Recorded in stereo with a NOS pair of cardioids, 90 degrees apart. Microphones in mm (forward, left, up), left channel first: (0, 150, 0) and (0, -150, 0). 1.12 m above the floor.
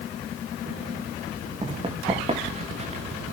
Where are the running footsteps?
20° right, 4.5 m; by 3.0 s 25° right, 5.5 m.